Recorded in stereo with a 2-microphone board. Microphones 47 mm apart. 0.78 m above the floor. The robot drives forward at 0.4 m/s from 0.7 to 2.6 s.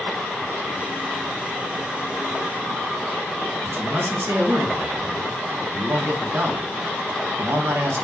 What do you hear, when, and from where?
3.6 s a man speaking: 65° right (ahead or behind), 1.5 m